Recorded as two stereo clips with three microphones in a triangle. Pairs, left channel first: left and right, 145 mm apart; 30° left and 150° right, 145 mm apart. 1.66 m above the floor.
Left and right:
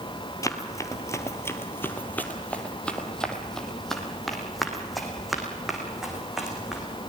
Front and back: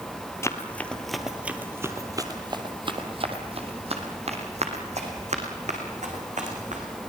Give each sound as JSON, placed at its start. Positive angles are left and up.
{"t": 0.4, "sound": "running footsteps", "azimuth_deg": 65, "distance_m": 1.8}